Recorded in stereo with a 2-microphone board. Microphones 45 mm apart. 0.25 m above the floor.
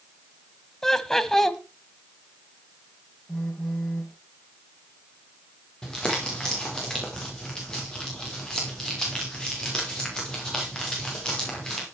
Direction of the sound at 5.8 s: 15° left (ahead or behind).